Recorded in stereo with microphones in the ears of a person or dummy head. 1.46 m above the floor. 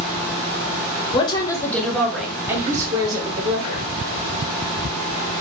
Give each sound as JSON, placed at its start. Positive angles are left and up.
{"t": 1.1, "sound": "a woman speaking", "side_deg": 30, "distance_m": 1.4}